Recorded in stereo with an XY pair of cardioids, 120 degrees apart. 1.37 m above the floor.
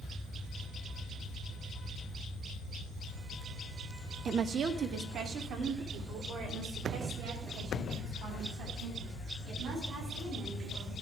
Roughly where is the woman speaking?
Ahead right.